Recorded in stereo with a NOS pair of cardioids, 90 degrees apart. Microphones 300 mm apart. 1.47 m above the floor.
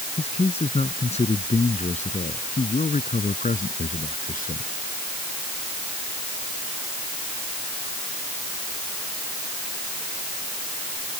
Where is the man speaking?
20° left; by 4.7 s 30° left.